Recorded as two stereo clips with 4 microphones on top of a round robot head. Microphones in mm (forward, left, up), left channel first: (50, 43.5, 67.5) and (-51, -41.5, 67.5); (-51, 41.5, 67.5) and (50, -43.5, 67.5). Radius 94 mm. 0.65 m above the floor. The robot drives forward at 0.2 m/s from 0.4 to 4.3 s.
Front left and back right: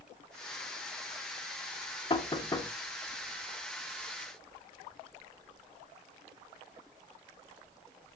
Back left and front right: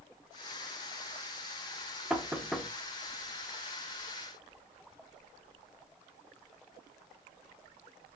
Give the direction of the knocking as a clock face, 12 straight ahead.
11 o'clock.